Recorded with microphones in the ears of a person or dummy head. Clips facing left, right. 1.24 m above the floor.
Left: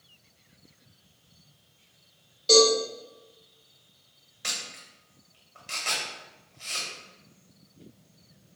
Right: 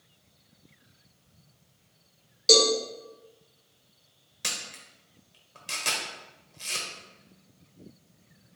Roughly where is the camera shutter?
Right.